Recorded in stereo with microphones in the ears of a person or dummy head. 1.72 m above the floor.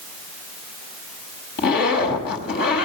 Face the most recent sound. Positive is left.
turn(degrees=60)  # may be behind; listen again after turning